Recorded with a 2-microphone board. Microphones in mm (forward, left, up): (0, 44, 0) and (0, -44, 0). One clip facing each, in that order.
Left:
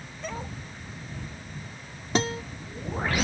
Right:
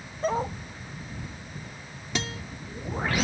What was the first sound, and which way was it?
A dog barking, 40° right (ahead or behind).